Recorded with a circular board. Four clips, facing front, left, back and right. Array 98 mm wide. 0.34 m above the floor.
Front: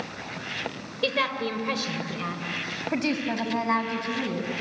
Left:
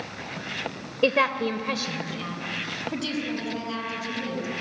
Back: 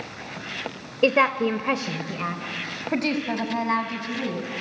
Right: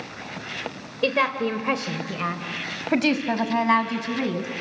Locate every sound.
1.0 s a woman speaking: 170° left, 1.0 m; by 4.5 s 90° right, 2.5 m